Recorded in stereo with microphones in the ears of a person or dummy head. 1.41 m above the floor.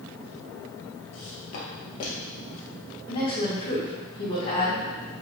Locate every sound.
1.1 s footsteps: 35° left (ahead or behind), 1.6 m; by 2.6 s 60° left (ahead or behind), 2.5 m
3.1 s a woman speaking: 35° left (ahead or behind), 2 m